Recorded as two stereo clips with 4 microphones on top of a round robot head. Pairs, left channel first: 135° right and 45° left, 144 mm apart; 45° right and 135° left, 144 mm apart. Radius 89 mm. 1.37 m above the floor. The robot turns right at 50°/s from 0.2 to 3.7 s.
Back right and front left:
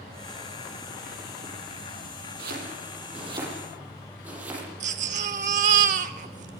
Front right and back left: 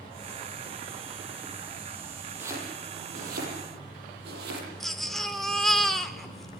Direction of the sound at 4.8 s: 45° left.